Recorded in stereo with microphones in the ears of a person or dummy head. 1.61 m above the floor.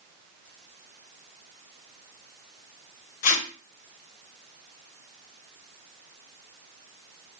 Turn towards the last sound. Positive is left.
turn(degrees=45)  # may be behind; listen again after turning